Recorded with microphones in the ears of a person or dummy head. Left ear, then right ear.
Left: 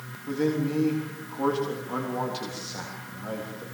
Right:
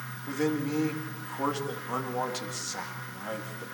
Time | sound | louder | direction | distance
0.3 | a man speaking | left 3 dB | 30° right (ahead or behind) | 3.5 m